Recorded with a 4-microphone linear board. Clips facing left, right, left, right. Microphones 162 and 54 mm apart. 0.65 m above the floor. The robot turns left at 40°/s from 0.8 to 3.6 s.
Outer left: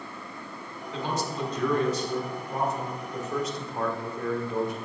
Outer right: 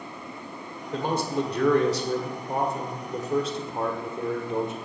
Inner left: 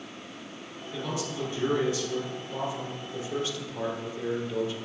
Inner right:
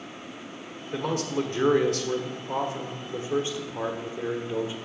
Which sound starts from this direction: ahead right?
A man speaking, at 0.9 s.